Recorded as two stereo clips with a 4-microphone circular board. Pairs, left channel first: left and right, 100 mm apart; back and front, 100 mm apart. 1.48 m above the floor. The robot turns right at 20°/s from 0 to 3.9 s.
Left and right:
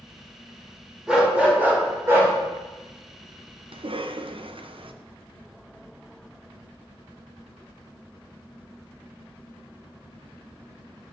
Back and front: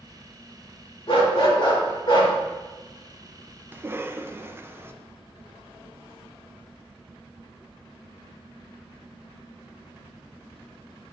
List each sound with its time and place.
1.1 s a dog barking: 170° right, 2 m; by 2.3 s 145° right, 2 m
3.7 s a cough: 70° right, 0.6 m; by 4.9 s 65° right, 0.6 m